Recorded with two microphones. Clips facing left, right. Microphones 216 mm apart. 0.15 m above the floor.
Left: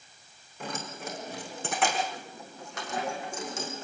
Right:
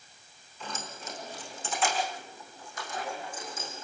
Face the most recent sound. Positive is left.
turn(degrees=80)